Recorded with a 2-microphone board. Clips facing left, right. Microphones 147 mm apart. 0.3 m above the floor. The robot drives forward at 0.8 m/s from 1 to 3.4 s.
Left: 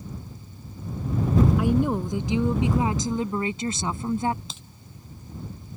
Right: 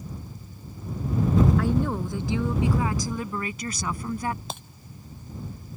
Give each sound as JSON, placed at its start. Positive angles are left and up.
{"t": 1.6, "sound": "a woman speaking", "side_deg": 15}
{"t": 4.5, "sound": "breaking glass", "side_deg": -60}